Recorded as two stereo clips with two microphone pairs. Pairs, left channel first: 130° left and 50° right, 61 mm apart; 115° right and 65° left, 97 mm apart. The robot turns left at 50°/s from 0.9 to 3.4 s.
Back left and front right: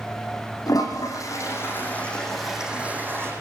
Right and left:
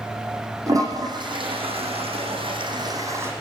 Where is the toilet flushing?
120° left, 6.5 m; by 3.3 s 5° right, 6.5 m.